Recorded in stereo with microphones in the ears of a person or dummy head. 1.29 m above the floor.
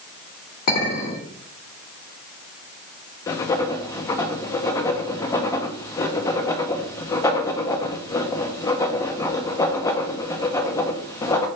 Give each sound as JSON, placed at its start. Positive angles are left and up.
{"t": 0.7, "sound": "a clink", "side_deg": 40, "distance_m": 1.7}
{"t": 3.3, "sound": "writing", "side_deg": 15, "distance_m": 0.5}